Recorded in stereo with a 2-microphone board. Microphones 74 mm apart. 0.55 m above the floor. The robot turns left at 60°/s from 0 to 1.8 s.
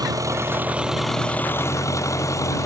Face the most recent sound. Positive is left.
turn(degrees=135)